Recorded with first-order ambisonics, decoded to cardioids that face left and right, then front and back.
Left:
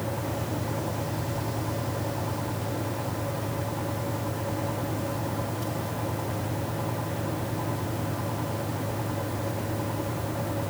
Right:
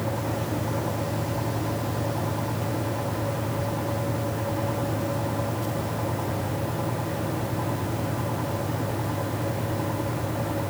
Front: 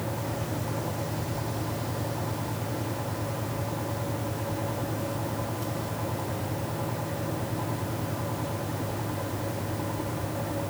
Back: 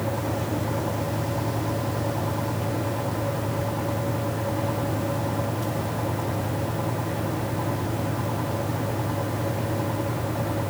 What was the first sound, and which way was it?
Only background noise.